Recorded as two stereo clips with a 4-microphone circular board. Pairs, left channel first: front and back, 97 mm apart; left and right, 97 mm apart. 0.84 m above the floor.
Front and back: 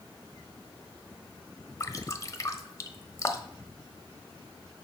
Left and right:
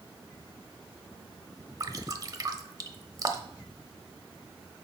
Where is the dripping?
50° right, 0.9 m.